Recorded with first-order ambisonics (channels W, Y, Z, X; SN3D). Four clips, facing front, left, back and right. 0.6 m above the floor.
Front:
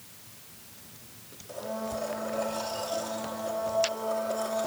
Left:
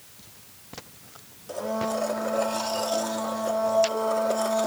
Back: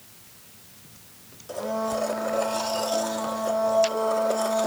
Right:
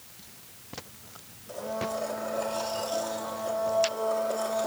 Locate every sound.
1.5 s a blender: 145° left, 1.1 m